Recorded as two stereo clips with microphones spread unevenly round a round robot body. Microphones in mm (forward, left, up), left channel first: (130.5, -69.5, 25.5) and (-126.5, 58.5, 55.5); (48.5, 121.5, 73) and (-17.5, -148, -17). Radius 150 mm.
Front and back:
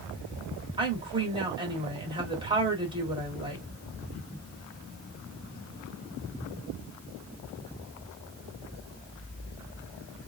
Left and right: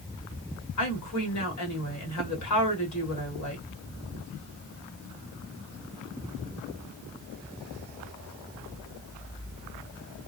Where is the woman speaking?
80° left, 1.5 m.